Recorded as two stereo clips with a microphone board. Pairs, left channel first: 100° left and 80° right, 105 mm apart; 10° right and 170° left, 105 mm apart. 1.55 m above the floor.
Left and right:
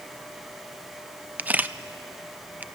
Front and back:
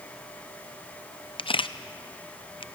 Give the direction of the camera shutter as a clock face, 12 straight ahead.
12 o'clock.